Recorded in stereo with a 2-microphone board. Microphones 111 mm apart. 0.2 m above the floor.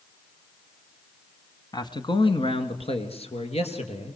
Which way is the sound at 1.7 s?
35° left (ahead or behind).